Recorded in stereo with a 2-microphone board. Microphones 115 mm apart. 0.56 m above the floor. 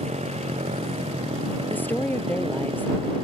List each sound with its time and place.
0.0 s a motorcycle: 70° right (ahead or behind); by 3.2 s 50° right (ahead or behind)
1.7 s a woman speaking: 15° left (ahead or behind)